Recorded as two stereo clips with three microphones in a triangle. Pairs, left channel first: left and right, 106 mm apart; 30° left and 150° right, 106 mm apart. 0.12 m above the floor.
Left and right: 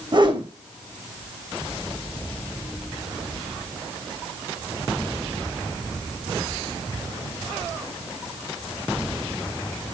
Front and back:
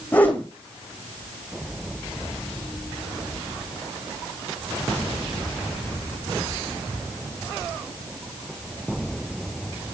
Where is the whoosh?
45° right, 1.6 m.